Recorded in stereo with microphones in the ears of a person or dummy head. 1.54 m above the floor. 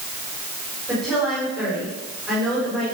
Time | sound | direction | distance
0.9 | a woman speaking | centre (ahead or behind) | 5.5 m